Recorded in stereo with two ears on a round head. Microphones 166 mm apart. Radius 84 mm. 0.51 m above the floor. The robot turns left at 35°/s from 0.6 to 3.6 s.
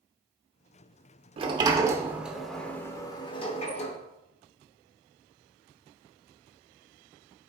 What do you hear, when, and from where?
1.4 s a sliding door: 140° right, 0.8 m; by 4.0 s 140° left, 0.8 m